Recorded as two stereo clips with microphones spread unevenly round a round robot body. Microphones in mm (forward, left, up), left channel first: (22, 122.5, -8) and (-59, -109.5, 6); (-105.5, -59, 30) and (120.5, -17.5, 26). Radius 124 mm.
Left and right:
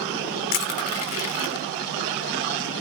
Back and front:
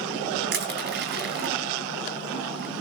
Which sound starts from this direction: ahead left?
Crushing, at 0.5 s.